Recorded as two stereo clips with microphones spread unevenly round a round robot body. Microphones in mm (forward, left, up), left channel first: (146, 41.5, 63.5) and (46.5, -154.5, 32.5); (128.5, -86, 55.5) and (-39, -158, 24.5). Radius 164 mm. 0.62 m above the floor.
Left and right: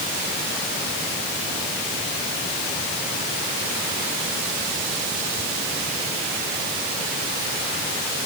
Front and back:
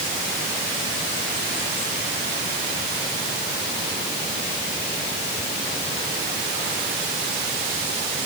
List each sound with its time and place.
Only background noise.